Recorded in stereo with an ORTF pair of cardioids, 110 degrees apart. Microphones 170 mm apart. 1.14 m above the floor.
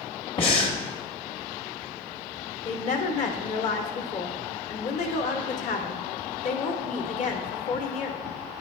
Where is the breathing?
35° left, 1.2 m.